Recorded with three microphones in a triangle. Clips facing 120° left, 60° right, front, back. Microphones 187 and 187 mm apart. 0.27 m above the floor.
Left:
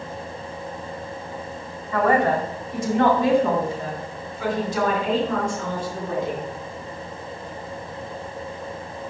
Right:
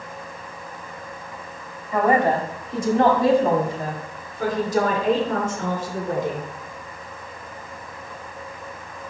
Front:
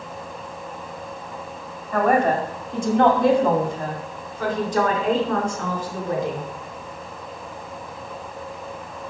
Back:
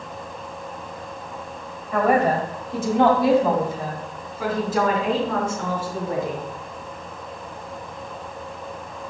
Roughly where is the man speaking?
Right.